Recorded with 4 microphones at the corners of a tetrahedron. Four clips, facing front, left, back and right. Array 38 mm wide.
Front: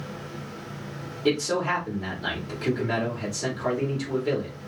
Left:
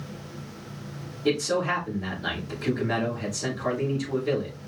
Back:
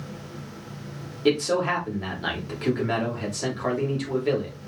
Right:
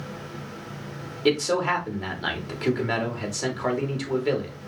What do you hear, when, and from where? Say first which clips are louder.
1.2 s a man speaking: right 2 dB, back 2 dB; 115° right, 2.5 m